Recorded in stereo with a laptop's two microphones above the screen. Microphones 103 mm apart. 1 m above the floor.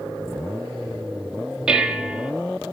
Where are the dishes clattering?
5° right (ahead or behind), 0.9 m.